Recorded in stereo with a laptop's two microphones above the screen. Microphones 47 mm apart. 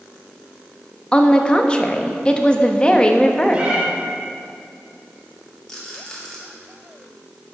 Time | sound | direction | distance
1.1 | a woman speaking | 20° left (ahead or behind) | 1.2 m
3.5 | a cat meowing | 25° right (ahead or behind) | 1.4 m
5.7 | a rattle | 15° left (ahead or behind) | 2.5 m